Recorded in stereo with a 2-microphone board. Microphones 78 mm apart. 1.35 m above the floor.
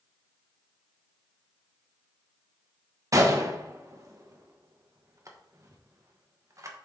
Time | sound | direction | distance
3.1 | a gunshot | 40° right (ahead or behind) | 1.1 m